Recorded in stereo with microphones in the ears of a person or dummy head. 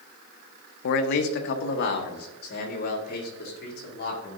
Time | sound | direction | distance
0.8 | a man speaking | 55° left (ahead or behind) | 0.6 m